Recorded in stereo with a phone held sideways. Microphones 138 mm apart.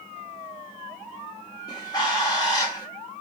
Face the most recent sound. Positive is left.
turn(degrees=25)  # may be behind; listen again after turning